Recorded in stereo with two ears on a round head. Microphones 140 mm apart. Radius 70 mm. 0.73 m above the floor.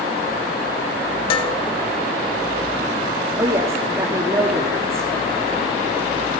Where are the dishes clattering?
30° left (ahead or behind), 2 m.